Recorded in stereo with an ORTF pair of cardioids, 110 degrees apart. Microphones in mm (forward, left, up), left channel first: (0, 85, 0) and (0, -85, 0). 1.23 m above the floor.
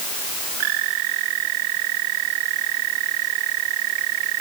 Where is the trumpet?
I don't hear a trumpet.